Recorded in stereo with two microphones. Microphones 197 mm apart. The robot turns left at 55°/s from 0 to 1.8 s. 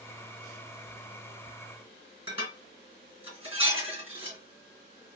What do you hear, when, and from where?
2.3 s dishes clattering: 30° right (ahead or behind), 3 m